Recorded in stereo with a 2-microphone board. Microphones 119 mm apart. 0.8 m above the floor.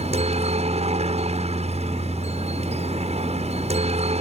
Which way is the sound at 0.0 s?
60° right (ahead or behind).